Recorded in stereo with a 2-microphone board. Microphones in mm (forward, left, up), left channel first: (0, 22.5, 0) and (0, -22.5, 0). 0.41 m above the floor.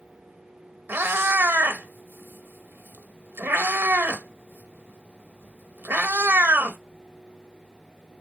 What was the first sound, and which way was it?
A cat meowing, 55° right (ahead or behind).